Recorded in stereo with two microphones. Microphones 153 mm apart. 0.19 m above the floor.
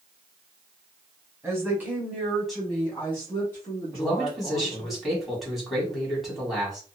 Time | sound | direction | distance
1.4 | a woman speaking | 15° right (ahead or behind) | 1.0 m
3.9 | a man speaking | centre (ahead or behind) | 1.4 m